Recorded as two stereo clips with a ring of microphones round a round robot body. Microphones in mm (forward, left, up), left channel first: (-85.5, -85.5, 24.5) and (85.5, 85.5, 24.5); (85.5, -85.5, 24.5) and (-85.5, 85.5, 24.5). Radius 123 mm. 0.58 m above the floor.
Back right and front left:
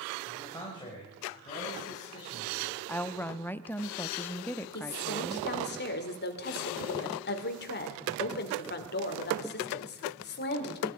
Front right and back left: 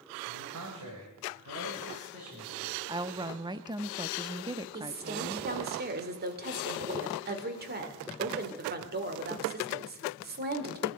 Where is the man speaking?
145° left, 2.5 m; by 2.8 s 170° left, 6 m.